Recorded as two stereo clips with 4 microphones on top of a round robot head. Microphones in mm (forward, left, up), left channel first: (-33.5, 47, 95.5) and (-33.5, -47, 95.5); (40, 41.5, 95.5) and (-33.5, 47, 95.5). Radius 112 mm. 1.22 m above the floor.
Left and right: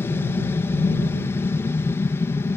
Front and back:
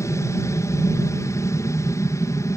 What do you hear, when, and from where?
0.0 s an aircraft: 30° left